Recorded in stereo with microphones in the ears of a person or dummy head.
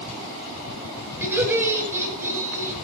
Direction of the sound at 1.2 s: 10° right (ahead or behind).